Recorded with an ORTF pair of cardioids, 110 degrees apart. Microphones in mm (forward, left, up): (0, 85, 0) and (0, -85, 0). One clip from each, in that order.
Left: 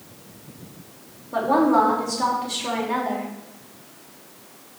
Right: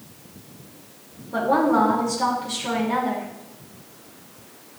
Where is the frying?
No frying in this recording.